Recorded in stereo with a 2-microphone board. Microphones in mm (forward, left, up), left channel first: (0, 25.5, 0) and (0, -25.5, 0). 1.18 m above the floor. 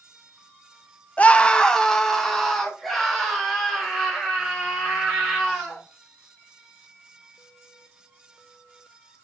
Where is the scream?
30° left (ahead or behind), 0.6 m; by 5.8 s centre (ahead or behind), 4.5 m.